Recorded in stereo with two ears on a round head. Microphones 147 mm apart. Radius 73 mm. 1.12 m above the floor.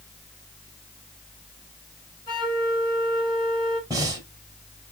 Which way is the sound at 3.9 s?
20° right (ahead or behind).